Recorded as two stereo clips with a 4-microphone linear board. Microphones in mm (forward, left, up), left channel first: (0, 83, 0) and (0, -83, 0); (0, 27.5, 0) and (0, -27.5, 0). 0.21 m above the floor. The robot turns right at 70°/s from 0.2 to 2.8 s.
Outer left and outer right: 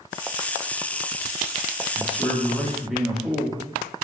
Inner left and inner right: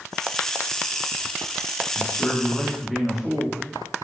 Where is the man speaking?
125° left, 4.5 m; by 3.6 s 175° right, 4.5 m.